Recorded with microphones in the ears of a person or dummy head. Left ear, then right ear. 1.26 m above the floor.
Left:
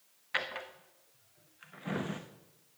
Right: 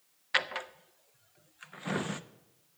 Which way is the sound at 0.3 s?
25° right (ahead or behind).